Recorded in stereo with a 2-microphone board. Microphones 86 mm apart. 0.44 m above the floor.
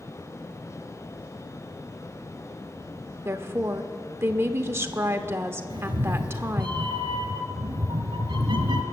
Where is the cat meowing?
70° right (ahead or behind), 1.2 m.